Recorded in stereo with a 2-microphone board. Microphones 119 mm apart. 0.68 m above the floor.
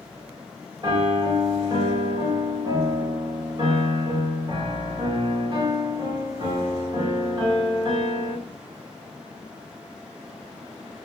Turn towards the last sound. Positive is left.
turn(degrees=-40)  # may be behind; listen again after turning